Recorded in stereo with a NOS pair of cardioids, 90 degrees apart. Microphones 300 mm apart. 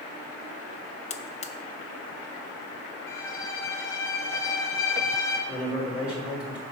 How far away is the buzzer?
About 0.7 m.